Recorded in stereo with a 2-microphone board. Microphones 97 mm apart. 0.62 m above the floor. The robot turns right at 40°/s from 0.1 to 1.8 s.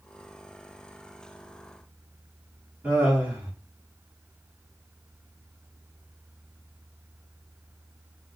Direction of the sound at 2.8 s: 20° right (ahead or behind).